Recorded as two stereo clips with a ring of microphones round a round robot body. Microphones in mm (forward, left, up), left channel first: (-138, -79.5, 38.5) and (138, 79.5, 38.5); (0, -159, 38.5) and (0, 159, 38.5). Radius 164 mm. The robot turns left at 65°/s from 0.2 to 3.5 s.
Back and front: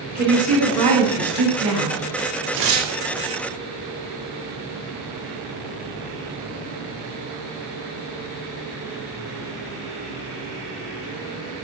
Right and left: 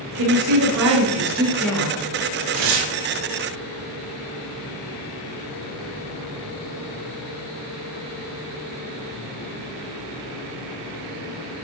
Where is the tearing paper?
90° left, 1.1 m; by 2.9 s 65° left, 1.1 m.